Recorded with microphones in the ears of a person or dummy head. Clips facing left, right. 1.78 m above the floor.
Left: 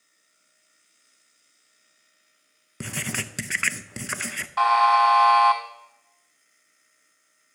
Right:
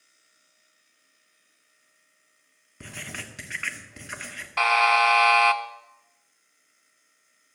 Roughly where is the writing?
Left.